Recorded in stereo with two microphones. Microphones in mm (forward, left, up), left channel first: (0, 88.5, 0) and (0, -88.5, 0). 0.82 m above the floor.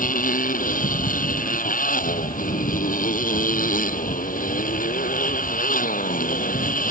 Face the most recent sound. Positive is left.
turn(degrees=50)  # may be behind; listen again after turning